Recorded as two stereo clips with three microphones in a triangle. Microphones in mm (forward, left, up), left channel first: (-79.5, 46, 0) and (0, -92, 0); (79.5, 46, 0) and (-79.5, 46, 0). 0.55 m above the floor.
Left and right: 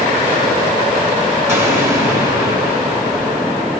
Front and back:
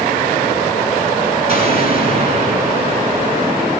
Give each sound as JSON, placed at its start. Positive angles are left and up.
{"t": 1.5, "sound": "an explosion", "azimuth_deg": -130, "distance_m": 2.0}